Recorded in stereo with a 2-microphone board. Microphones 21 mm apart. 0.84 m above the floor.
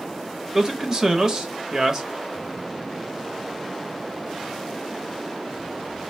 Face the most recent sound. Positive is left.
turn(degrees=-25)  # may be behind; listen again after turning